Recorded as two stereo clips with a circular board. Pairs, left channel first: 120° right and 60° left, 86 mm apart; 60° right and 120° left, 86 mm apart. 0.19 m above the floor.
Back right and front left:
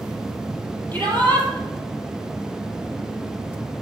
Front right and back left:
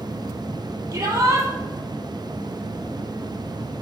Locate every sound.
0.9 s a shout: 175° left, 5 m